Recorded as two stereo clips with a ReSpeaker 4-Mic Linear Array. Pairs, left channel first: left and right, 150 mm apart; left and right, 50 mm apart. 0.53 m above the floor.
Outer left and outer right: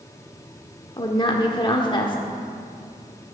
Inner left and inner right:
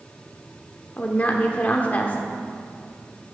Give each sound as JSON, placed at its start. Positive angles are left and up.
{"t": 1.0, "sound": "a woman speaking", "side_deg": 30, "distance_m": 1.2}